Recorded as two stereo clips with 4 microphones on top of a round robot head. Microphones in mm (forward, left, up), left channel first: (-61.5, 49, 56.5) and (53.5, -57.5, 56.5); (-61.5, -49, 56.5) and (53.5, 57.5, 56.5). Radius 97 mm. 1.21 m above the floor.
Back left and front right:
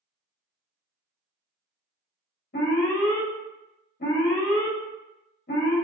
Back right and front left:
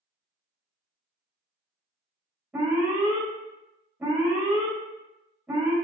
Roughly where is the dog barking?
I don't hear a dog barking.